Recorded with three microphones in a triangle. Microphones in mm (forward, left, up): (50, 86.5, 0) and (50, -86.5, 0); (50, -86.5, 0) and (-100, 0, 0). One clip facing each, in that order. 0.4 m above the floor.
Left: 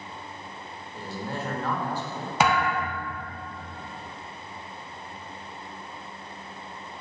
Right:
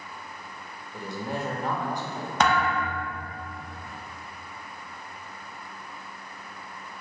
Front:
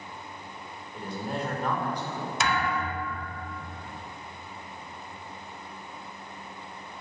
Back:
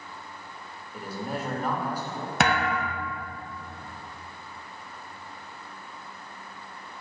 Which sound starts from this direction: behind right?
A man speaking, at 0.9 s.